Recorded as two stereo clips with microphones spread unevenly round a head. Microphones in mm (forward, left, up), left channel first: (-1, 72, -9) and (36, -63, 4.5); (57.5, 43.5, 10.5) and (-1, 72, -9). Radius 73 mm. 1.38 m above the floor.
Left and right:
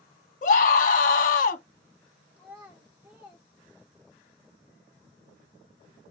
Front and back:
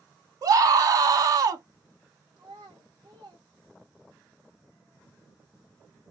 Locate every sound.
0.4 s a scream: 140° left, 0.7 m
2.4 s a child speaking: 155° right, 1.0 m